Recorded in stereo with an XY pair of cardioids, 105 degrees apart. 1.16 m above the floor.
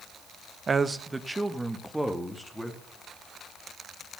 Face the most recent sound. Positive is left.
turn(degrees=0)